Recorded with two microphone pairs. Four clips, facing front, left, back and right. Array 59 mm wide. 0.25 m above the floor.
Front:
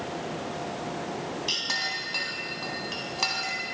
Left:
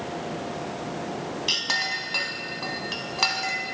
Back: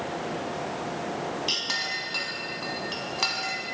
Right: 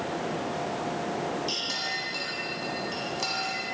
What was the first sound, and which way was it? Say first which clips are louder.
A clink: left 5 dB, even; 90° left.